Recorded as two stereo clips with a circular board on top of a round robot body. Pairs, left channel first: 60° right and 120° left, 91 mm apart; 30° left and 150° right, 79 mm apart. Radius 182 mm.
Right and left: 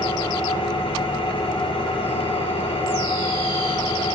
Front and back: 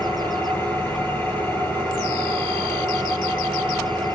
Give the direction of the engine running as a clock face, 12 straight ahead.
1 o'clock.